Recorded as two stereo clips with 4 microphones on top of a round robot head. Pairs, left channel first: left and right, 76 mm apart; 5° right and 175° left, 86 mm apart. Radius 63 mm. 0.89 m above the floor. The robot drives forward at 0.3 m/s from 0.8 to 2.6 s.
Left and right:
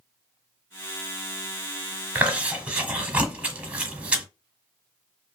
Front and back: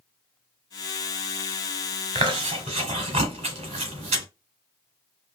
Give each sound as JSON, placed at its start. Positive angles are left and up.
{"t": 2.1, "sound": "chewing", "azimuth_deg": -160, "distance_m": 1.1}